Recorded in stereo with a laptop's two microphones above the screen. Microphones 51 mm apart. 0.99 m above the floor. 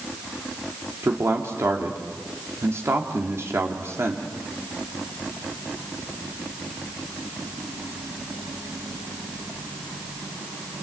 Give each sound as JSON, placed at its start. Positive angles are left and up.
{"t": 1.0, "sound": "a man speaking", "side_deg": -60, "distance_m": 2.5}